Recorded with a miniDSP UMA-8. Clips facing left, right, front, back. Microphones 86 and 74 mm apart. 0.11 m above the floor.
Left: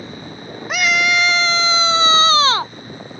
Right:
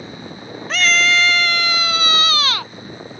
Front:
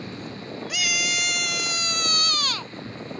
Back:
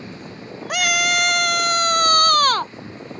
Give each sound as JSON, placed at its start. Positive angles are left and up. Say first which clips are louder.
{"t": 0.7, "sound": "a scream", "louder": "even, back 9 dB", "azimuth_deg": 165}